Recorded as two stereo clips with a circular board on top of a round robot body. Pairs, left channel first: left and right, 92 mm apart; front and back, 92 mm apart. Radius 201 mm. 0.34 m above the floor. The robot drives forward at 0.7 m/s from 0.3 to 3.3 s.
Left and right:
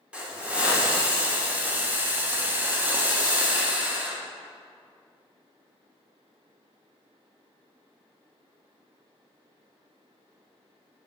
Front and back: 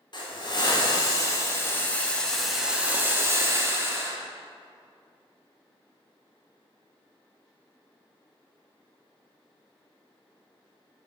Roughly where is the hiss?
Ahead.